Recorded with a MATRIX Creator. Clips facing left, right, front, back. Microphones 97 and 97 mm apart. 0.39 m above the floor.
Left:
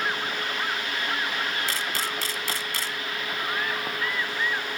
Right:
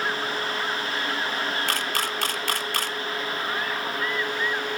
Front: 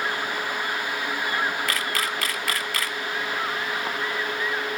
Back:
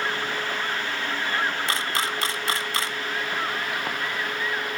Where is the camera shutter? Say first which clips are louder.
Right 3 dB, even; 120° right, 0.6 m.